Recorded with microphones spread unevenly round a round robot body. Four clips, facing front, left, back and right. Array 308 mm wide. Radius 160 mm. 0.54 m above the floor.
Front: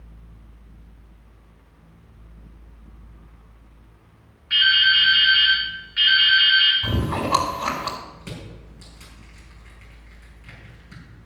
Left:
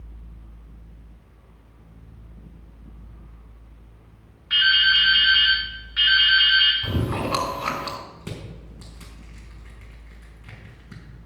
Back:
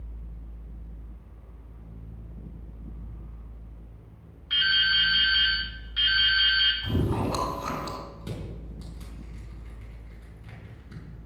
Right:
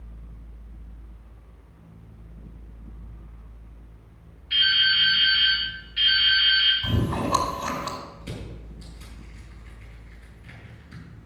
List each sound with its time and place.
4.5 s dripping: 90° left, 3 m
6.8 s chewing: 30° left, 3.5 m
8.2 s crushing: 85° left, 5.5 m